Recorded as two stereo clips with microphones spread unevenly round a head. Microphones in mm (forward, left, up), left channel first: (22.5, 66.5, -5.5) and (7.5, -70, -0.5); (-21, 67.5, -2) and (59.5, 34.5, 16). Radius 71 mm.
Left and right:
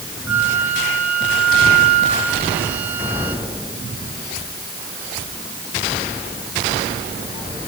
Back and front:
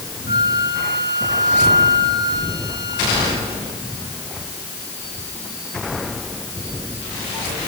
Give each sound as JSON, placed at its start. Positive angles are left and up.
{"t": 0.3, "sound": "a flute", "azimuth_deg": -25, "distance_m": 2.0}